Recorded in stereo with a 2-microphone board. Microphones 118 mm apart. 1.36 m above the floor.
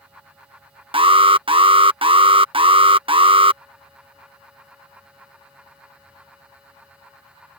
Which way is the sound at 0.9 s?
50° right (ahead or behind).